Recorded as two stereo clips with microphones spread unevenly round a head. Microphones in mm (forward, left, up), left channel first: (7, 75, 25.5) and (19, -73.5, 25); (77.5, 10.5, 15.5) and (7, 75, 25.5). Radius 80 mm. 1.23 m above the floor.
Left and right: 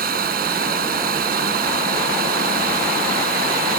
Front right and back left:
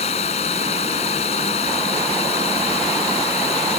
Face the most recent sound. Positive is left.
turn(degrees=-65)